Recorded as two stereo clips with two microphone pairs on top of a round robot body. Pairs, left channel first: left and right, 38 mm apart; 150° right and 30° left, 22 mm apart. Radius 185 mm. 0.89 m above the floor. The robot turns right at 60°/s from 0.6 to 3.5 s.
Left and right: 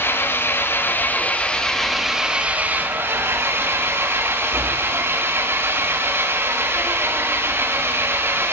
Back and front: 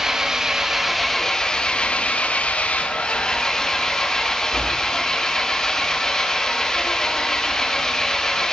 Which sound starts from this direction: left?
An engine running, at 0.0 s.